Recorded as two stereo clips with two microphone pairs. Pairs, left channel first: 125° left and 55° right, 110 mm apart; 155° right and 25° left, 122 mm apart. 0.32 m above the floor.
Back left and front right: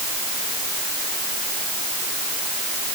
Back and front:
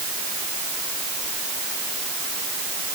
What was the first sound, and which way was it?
Only background noise.